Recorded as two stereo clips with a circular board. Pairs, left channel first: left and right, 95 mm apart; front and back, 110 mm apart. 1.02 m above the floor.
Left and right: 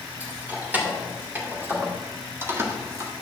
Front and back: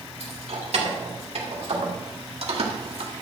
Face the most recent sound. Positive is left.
turn(degrees=-145)